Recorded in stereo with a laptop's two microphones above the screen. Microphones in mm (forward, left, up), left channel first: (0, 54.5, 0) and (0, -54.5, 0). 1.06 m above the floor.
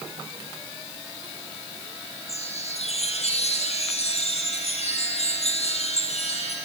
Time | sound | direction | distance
2.3 | a chime | 75° left (ahead or behind) | 5 m